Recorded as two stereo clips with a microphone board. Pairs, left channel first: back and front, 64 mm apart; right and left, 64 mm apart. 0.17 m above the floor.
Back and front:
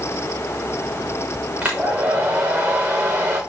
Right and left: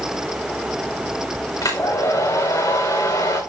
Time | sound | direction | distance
1.6 | a hair dryer | 70° right | 4.5 m